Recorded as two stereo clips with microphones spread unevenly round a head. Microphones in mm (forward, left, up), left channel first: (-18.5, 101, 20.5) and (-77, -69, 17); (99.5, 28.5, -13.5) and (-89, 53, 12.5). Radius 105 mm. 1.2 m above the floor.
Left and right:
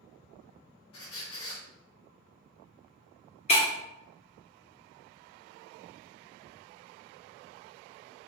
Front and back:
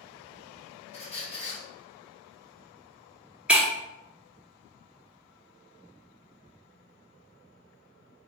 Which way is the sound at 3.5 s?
100° left.